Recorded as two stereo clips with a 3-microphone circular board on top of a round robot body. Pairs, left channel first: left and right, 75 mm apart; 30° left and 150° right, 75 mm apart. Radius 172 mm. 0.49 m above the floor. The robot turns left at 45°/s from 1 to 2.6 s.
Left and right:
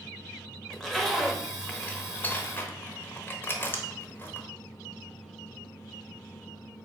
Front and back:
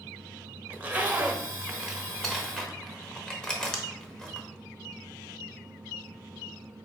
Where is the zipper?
175° left, 1.1 m; by 4.5 s 100° left, 1.1 m.